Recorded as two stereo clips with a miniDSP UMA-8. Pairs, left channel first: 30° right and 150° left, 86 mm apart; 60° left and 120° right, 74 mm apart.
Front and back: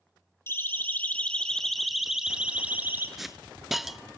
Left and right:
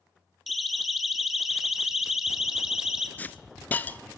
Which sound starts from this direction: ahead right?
A siren, at 0.5 s.